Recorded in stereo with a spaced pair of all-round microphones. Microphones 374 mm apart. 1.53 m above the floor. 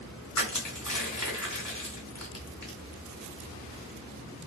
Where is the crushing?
55° left (ahead or behind), 2 m.